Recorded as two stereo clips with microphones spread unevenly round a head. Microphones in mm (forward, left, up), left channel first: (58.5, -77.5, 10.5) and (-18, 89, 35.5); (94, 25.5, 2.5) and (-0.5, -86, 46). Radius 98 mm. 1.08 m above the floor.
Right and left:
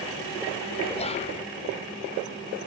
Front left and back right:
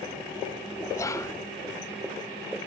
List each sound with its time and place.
0.9 s whispering: 15° right, 0.9 m